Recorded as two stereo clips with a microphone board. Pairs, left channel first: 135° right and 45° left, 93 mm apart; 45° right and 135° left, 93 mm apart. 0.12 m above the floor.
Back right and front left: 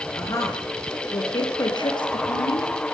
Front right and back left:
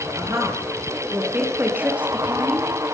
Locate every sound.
0.1 s a woman speaking: straight behind, 2.5 m; by 2.7 s 145° right, 3.5 m